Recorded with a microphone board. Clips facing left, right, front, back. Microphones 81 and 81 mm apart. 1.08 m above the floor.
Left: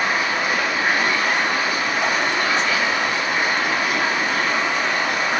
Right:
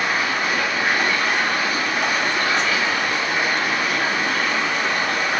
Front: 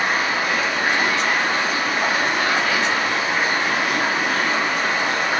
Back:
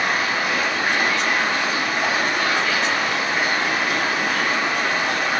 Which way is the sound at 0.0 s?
25° left.